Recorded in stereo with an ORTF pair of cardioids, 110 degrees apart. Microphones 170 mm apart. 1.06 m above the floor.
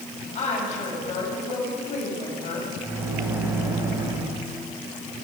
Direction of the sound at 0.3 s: 45° left.